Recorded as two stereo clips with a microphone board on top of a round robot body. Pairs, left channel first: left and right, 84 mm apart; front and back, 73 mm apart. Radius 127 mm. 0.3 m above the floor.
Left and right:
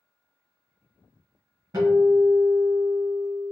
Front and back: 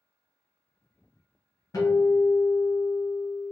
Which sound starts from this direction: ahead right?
A guitar, at 1.7 s.